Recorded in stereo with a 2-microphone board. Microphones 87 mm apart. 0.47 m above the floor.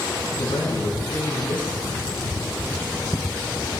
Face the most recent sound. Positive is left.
turn(degrees=70)  # may be behind; listen again after turning